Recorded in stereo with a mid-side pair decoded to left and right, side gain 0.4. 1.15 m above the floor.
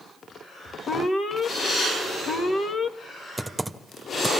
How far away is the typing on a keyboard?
About 1.5 m.